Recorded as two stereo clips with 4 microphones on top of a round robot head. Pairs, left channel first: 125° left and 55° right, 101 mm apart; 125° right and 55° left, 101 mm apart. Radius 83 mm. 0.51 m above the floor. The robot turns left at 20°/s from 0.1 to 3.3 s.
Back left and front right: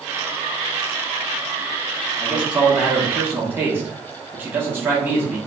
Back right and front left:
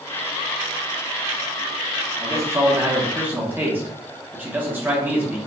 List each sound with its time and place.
2.2 s a man speaking: 20° left, 1.1 m; by 5.4 s straight ahead, 1.1 m